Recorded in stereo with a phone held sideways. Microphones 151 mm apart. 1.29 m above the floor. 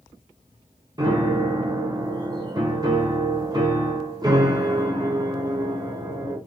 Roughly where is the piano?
Right.